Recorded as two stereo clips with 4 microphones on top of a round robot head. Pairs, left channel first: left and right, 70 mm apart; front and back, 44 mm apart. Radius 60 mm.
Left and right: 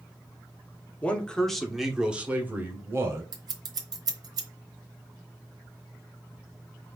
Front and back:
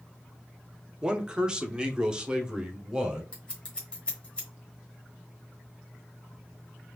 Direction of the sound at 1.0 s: 140° left.